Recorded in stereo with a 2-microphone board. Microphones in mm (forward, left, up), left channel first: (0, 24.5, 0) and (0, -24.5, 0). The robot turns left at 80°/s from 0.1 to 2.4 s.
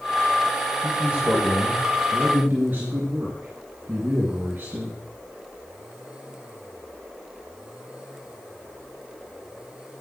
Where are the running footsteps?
No running footsteps in this recording.